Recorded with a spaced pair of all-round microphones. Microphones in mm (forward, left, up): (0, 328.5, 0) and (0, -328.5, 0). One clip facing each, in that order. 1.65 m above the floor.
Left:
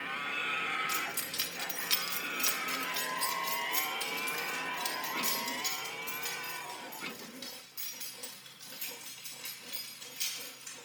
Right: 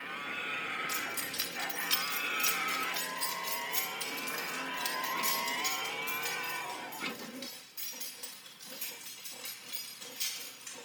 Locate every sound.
0.9 s keys jangling: 60° left (ahead or behind), 1.3 m; by 10.8 s 10° right (ahead or behind), 7 m